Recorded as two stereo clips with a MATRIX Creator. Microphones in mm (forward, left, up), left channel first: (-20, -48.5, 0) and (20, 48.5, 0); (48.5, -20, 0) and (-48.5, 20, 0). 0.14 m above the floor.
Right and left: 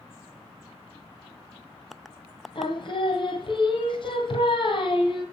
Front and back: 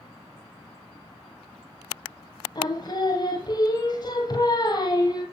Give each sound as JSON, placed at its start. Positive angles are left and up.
{"t": 2.5, "sound": "singing", "azimuth_deg": -75, "distance_m": 1.4}